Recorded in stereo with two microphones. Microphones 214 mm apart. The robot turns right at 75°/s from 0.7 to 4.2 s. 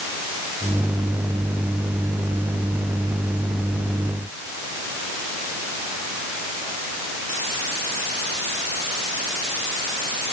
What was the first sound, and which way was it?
Only background noise.